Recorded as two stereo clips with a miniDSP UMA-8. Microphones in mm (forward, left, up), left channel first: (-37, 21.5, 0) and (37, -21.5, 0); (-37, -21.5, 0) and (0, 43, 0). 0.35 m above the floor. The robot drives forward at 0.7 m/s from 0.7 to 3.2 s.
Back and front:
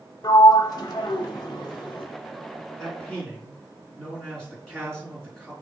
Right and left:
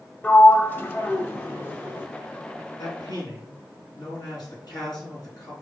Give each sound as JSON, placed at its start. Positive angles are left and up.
{"t": 0.2, "sound": "a sliding door", "azimuth_deg": 180, "distance_m": 0.6}
{"t": 2.8, "sound": "a man speaking", "azimuth_deg": -125, "distance_m": 3.5}